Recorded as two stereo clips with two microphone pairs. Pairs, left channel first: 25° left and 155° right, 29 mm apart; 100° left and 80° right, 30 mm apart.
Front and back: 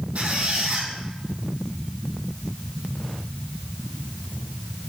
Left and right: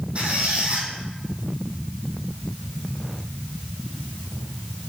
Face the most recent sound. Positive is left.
turn(degrees=-125)